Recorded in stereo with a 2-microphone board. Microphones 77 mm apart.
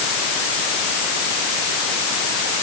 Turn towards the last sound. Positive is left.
No sound to turn to.